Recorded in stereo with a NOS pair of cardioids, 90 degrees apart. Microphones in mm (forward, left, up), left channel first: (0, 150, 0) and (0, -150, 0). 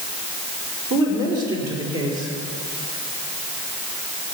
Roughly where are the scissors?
I don't hear scissors.